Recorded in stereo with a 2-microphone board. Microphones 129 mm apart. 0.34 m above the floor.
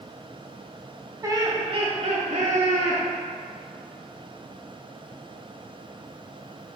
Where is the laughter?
25° right (ahead or behind), 1.6 m; by 3.0 s 65° right (ahead or behind), 2.5 m.